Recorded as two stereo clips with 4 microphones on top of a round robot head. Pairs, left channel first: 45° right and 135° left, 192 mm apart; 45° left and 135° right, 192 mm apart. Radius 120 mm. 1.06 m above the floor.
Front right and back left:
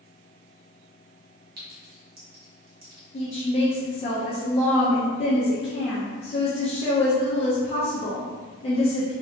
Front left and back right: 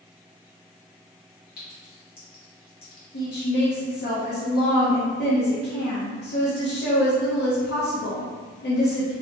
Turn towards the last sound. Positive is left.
turn(degrees=15)